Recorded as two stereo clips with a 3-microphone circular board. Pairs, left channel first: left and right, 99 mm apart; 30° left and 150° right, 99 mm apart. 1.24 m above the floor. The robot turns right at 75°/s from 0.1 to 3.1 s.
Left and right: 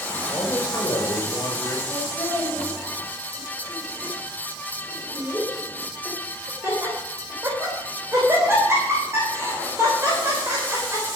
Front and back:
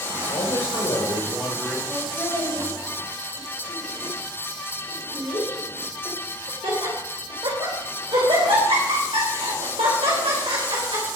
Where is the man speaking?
20° left, 5 m; by 1.8 s 135° left, 5 m.